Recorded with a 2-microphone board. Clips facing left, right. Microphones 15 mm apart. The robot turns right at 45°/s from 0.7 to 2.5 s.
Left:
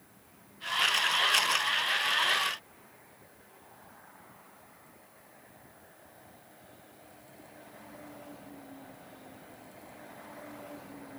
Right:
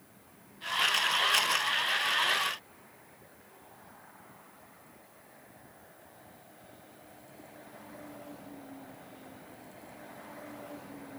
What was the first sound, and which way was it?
Only background noise.